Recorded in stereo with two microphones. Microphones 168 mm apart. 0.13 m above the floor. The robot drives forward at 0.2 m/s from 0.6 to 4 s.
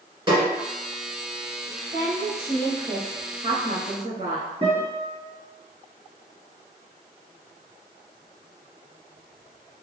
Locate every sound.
0.3 s a snare drum: 30° right (ahead or behind), 1.9 m
1.9 s a woman speaking: 45° right (ahead or behind), 1.9 m; by 4.5 s 40° right (ahead or behind), 2 m
4.6 s a guitar: 40° right (ahead or behind), 1.8 m